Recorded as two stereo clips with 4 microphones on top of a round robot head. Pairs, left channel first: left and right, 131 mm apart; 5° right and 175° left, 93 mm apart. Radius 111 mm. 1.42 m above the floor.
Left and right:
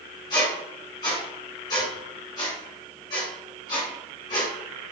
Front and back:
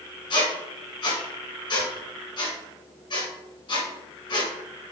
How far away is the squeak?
About 2 m.